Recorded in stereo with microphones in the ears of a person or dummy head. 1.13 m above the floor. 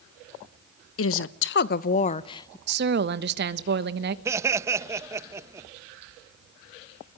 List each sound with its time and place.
1.0 s a woman speaking: 70° left (ahead or behind), 1.0 m; by 2.6 s 15° left (ahead or behind), 0.8 m
2.7 s a woman speaking: 55° right (ahead or behind), 1.2 m
4.2 s laughter: 20° right (ahead or behind), 0.9 m